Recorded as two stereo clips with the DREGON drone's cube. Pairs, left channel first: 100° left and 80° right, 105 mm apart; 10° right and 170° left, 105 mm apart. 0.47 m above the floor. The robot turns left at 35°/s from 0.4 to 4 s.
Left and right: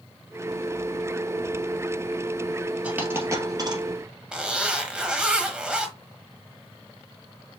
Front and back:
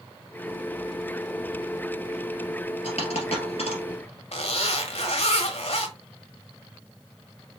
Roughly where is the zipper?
Ahead.